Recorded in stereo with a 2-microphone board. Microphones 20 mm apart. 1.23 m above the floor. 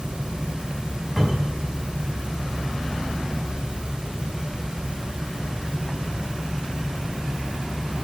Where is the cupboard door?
25° right (ahead or behind), 6.5 m.